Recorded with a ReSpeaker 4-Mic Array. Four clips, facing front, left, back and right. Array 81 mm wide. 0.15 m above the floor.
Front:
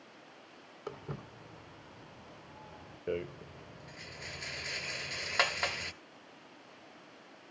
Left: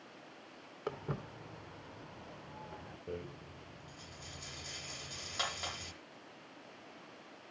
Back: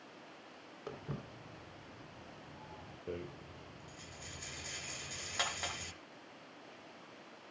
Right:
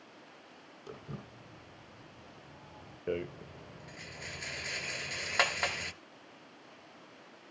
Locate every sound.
0.9 s footsteps: 80° left, 3 m; by 3.0 s 85° left, 4.5 m
3.1 s a rattle: 60° right, 1.0 m